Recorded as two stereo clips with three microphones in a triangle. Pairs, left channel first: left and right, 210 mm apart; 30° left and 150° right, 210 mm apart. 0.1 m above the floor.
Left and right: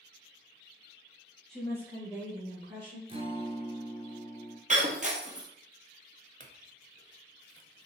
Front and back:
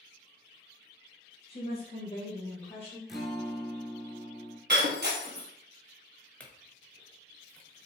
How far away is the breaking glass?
About 1.3 m.